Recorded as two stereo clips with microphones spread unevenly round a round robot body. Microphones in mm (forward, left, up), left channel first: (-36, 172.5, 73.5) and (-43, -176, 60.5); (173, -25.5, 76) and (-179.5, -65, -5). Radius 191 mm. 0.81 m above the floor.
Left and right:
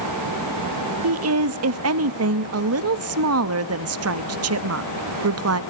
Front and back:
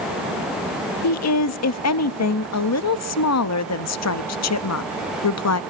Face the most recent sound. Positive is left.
turn(degrees=-45)